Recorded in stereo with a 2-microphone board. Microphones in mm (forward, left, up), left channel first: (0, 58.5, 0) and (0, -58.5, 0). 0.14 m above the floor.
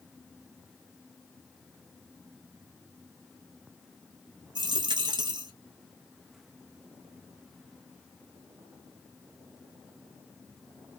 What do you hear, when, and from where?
4.5 s a dropped coin: 40° right (ahead or behind), 0.6 m